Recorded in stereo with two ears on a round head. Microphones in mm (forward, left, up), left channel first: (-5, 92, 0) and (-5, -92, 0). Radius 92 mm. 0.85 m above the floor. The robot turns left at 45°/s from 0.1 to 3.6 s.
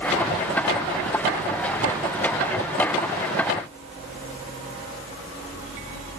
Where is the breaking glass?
No breaking glass in this recording.